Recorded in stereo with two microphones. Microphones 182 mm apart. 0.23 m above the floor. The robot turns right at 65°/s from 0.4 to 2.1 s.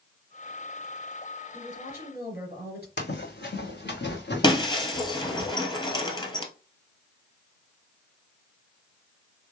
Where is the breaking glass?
25° left (ahead or behind), 1.3 m.